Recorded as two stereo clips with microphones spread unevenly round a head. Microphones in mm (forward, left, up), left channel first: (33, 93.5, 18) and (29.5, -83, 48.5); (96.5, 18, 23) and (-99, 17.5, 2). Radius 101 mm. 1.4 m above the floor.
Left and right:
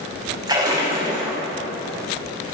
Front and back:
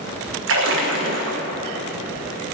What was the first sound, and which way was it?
A splash, 155° right.